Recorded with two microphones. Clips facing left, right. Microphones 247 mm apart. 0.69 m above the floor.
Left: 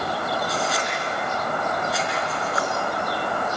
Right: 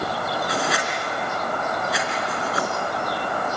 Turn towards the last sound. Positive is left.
turn(degrees=-75)  # may be behind; listen again after turning